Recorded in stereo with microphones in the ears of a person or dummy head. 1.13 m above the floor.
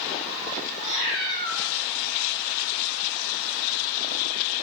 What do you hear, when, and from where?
0.8 s a cat meowing: 40° right (ahead or behind), 1.7 m